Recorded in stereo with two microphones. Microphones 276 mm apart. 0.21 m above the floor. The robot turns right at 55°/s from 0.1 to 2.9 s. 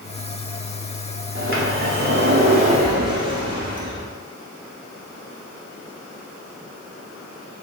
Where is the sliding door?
110° right, 0.9 m; by 4.1 s 25° right, 0.9 m.